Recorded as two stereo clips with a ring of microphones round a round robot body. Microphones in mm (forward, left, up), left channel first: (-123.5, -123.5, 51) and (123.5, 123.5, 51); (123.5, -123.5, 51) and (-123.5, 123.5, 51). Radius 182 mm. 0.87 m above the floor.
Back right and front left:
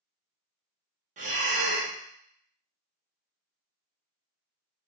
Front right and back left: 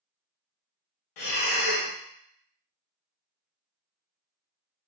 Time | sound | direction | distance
1.2 | breathing | 25° right | 0.9 m